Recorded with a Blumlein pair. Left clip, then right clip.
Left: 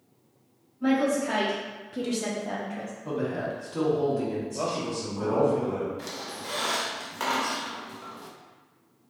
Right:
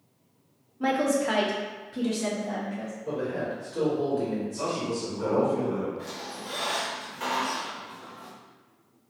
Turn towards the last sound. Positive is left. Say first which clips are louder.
# left 1 dB
turn(degrees=30)